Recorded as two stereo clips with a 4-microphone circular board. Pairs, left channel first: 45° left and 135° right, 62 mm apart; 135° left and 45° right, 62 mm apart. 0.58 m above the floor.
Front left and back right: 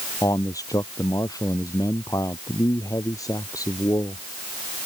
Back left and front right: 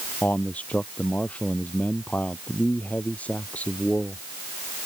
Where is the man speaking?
65° left.